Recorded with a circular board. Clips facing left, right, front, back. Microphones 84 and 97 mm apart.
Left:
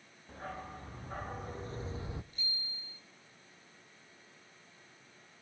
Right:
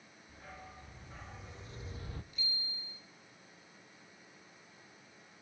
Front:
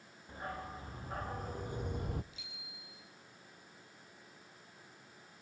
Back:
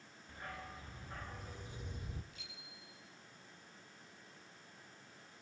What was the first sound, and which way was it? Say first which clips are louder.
A dog barking: left 8 dB, front 6 dB; 60° left.